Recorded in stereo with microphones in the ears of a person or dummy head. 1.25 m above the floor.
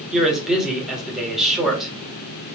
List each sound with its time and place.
0.1 s a man speaking: centre (ahead or behind), 1.8 m